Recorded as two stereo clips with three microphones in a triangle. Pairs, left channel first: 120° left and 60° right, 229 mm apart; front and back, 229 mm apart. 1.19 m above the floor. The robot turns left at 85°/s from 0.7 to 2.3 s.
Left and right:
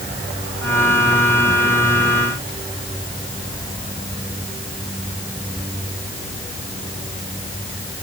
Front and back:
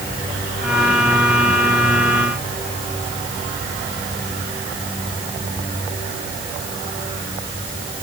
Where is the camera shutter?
No camera shutter in this recording.